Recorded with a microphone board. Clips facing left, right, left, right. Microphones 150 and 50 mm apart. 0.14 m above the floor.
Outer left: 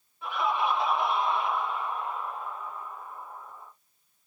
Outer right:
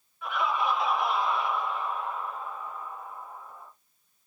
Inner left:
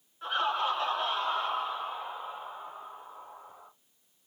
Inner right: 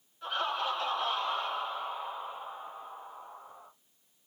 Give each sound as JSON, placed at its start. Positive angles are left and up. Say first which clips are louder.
{"t": 0.2, "sound": "laughter", "louder": "even, inner left 3 dB", "side_deg": 30, "distance_m": 1.9}